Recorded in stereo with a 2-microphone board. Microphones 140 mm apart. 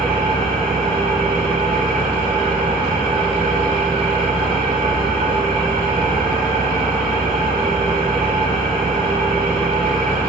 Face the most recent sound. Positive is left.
turn(degrees=-5)  # may be behind; listen again after turning